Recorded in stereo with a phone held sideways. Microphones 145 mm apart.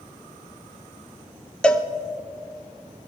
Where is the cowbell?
5° left (ahead or behind), 0.6 m.